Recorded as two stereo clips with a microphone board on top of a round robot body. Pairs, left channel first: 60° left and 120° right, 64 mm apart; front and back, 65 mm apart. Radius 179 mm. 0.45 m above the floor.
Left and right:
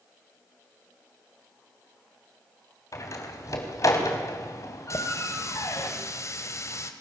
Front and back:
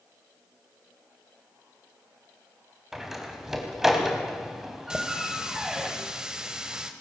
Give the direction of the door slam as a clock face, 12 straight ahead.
9 o'clock.